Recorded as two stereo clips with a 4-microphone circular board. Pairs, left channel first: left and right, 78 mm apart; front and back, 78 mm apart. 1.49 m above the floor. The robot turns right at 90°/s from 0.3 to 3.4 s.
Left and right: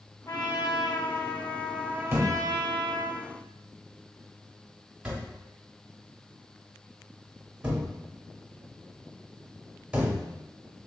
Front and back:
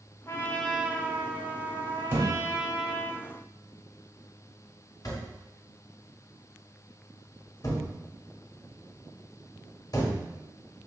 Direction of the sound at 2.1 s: 135° right.